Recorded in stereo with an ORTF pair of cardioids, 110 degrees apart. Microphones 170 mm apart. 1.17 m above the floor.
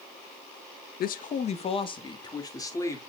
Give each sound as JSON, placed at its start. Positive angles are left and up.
{"t": 1.0, "sound": "a man speaking", "azimuth_deg": 65, "distance_m": 0.8}